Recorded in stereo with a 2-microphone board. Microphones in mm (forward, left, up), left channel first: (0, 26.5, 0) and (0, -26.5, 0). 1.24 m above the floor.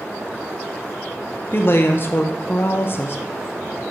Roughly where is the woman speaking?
Left.